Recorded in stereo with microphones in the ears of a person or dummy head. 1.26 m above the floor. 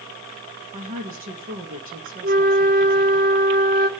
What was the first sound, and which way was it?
A woman speaking, 40° right (ahead or behind).